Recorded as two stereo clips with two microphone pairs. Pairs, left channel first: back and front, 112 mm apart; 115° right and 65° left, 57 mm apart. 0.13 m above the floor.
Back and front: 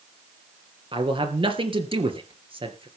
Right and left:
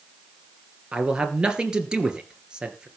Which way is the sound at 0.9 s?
5° right.